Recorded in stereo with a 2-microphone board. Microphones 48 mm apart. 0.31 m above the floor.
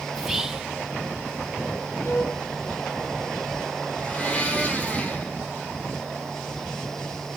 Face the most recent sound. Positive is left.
turn(degrees=25)  # may be behind; listen again after turning